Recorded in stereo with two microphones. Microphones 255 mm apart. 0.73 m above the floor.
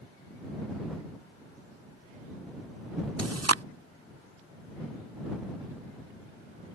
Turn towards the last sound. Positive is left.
turn(degrees=-70)  # may be behind; listen again after turning